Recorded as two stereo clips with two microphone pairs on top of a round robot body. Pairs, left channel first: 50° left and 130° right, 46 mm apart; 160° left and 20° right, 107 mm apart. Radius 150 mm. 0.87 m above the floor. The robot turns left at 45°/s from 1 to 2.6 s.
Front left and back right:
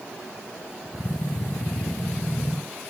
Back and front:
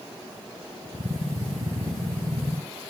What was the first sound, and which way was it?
Only background noise.